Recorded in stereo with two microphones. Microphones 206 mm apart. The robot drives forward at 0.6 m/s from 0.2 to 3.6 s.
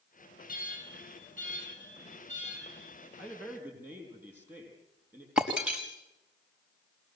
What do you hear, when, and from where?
0.5 s an alarm: 45° left (ahead or behind), 3.5 m; by 3.1 s 35° left (ahead or behind), 4.5 m
3.2 s a man speaking: 10° right (ahead or behind), 10 m
5.4 s breaking glass: 5° right (ahead or behind), 4.5 m